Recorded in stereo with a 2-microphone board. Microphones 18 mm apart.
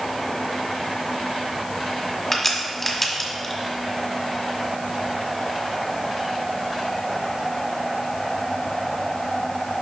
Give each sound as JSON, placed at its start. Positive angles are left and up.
{"t": 2.3, "sound": "a crack", "side_deg": 5, "distance_m": 1.4}